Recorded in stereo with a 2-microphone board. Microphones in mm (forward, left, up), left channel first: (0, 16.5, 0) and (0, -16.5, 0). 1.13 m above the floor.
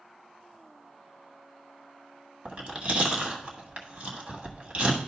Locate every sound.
2.5 s chewing: 40° right (ahead or behind), 1.4 m